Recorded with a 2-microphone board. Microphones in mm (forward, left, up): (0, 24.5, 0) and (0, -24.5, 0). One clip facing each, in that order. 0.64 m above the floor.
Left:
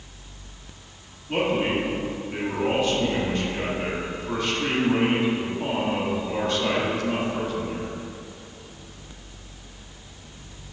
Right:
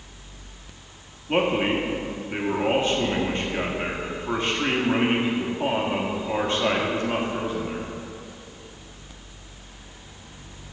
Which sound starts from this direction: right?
A man speaking, at 1.3 s.